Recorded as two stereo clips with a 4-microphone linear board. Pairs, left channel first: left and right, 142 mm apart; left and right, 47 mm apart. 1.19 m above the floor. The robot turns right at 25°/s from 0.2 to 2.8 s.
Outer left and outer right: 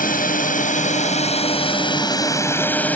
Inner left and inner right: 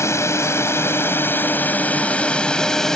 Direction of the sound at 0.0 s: 105° left.